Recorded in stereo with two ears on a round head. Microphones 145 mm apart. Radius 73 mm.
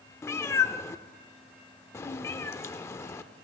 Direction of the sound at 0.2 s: 15° left (ahead or behind).